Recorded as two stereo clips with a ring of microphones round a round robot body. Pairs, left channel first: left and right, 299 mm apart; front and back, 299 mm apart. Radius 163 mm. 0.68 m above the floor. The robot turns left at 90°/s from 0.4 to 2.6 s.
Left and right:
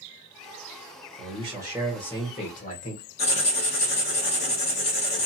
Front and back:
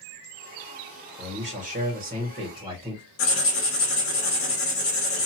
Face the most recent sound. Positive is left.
turn(degrees=25)